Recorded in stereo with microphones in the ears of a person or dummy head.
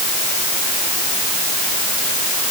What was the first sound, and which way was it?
Only background noise.